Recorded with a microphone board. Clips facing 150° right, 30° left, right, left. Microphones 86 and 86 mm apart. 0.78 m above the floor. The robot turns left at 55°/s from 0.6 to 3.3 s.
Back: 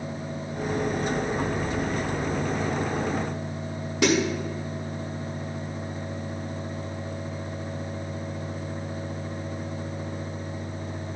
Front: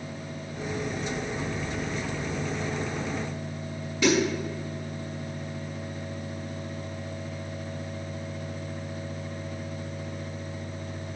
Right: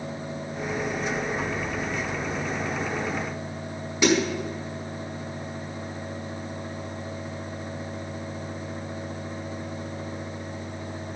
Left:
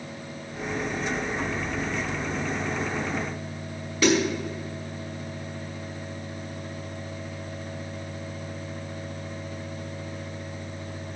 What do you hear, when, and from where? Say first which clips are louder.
4.0 s a snare drum: back 1 dB, even; 160° right, 5.5 m